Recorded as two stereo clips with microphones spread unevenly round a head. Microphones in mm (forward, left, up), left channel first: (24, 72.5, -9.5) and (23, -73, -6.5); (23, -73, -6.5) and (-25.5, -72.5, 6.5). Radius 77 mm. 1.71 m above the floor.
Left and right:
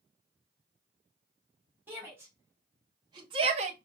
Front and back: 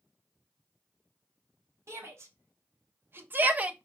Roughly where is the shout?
Behind.